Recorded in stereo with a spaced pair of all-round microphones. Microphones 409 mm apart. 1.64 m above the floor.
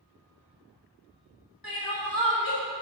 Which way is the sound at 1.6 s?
55° left (ahead or behind).